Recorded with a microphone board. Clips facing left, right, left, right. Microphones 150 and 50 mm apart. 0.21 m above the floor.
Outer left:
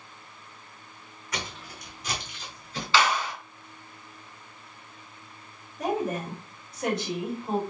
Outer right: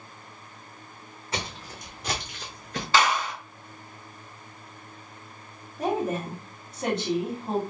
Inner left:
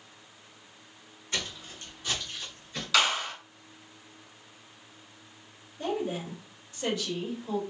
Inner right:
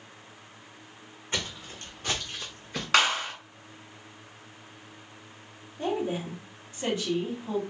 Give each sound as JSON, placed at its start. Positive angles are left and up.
{"t": 1.3, "sound": "footsteps", "side_deg": -30, "distance_m": 0.8}
{"t": 2.9, "sound": "a clap", "side_deg": -45, "distance_m": 2.0}
{"t": 5.8, "sound": "a woman speaking", "side_deg": -30, "distance_m": 1.6}